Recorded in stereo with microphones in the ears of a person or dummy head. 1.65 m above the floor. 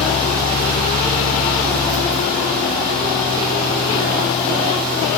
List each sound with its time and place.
0.0 s a fan: 20° right (ahead or behind), 1.8 m